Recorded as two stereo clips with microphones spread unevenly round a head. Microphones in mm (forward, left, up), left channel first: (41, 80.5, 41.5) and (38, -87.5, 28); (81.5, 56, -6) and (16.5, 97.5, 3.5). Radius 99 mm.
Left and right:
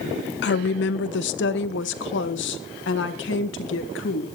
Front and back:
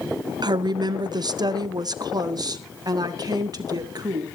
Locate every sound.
0.4 s a woman speaking: 115° left, 0.6 m